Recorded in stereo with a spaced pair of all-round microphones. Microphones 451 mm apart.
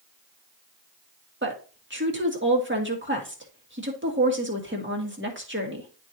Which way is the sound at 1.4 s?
25° right (ahead or behind).